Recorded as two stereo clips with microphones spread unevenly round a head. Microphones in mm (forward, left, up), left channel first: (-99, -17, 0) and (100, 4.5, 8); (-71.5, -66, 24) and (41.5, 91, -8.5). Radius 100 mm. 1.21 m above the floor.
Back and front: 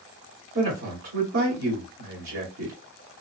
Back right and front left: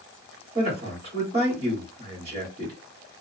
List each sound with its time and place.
0.6 s a man speaking: 5° right, 2.5 m